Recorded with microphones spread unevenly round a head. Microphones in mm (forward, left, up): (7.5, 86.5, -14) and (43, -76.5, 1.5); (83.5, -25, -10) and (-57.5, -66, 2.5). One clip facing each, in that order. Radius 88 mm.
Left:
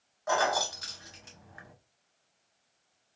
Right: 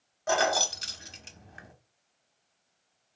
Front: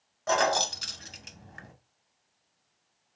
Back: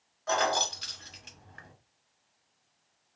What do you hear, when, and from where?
0.3 s keys jangling: 25° right, 0.6 m